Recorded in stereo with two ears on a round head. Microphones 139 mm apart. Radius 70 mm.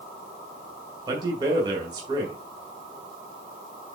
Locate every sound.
1.1 s a man speaking: 25° right (ahead or behind), 2.5 m